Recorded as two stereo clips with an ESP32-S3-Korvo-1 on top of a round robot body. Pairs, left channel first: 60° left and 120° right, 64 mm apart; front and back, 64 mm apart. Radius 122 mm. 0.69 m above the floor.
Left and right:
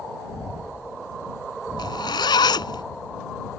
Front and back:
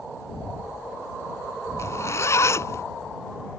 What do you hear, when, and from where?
1.8 s a zipper: 50° left